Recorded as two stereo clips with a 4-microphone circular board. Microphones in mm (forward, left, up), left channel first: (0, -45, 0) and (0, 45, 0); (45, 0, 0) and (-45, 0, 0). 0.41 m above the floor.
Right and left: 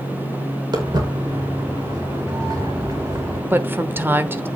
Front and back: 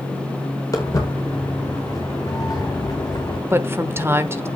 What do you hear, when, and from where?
0.7 s footsteps: 55° left, 6 m; by 3.4 s 45° left, 4.5 m
3.5 s a woman speaking: 140° left, 1.0 m